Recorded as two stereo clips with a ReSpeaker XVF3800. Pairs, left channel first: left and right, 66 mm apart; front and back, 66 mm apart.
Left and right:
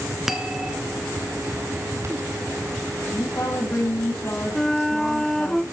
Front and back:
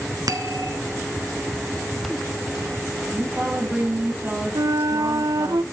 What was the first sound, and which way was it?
A bell, 175° right.